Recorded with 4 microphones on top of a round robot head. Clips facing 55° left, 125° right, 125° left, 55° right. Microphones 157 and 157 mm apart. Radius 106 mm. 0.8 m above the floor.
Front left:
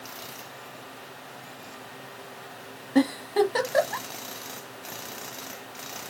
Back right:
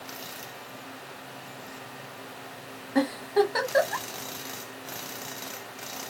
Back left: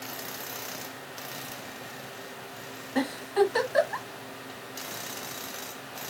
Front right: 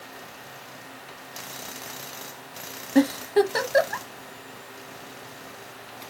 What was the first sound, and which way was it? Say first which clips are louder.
A giggle: front left 2 dB, front right 5 dB; 10° right.